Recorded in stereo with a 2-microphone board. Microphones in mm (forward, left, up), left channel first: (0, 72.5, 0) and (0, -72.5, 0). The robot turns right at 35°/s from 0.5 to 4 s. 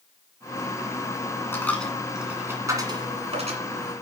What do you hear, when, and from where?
1.5 s a dropped coin: 15° left (ahead or behind), 1.7 m; by 3.6 s 55° right (ahead or behind), 1.7 m